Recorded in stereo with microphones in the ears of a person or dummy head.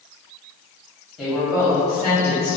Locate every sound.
1.2 s a woman speaking: centre (ahead or behind), 0.7 m; by 2.6 s 30° right (ahead or behind), 0.8 m